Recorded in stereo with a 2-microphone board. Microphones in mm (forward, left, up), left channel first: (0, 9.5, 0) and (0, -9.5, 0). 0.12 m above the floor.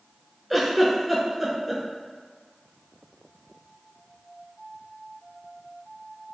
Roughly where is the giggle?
Centre.